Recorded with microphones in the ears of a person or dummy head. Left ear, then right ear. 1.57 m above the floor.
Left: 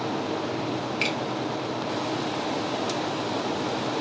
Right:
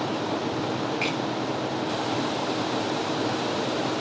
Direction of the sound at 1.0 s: 35° left (ahead or behind).